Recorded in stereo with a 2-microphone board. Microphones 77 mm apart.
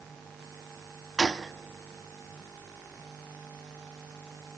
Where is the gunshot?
Centre (ahead or behind), 0.5 m.